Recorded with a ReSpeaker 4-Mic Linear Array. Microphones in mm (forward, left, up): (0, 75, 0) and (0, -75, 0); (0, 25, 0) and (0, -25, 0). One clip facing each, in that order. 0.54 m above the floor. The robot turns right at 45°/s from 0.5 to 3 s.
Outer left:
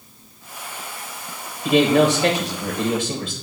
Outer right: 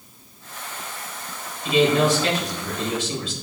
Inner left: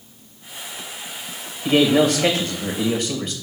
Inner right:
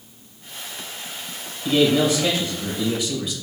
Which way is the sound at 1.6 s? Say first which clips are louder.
Outer left 3 dB, inner left 2 dB; 60° left.